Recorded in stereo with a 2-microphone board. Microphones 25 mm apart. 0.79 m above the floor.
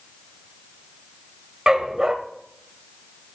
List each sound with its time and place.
1.7 s a dog barking: 30° right (ahead or behind), 1.2 m